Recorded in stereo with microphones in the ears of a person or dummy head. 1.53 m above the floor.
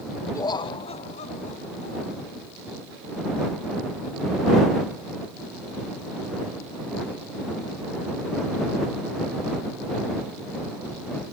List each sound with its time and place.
0.3 s laughter: 15° left (ahead or behind); by 2.3 s 45° left (ahead or behind)